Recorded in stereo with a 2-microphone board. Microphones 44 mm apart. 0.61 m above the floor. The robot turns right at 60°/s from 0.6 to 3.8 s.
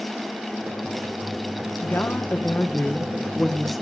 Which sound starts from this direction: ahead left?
A woman speaking, at 1.8 s.